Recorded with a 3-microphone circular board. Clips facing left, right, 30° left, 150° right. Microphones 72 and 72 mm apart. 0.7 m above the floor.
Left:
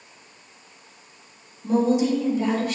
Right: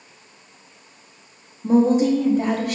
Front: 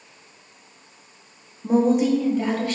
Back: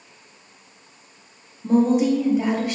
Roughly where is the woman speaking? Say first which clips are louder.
Right 4 dB, back 1 dB; ahead right.